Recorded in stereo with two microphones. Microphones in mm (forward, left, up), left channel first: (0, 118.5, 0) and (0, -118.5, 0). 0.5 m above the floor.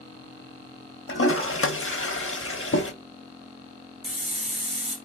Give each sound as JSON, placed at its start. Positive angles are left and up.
{"t": 1.1, "sound": "a toilet flushing", "side_deg": 60, "distance_m": 0.5}
{"t": 4.0, "sound": "a hiss", "side_deg": 40, "distance_m": 1.5}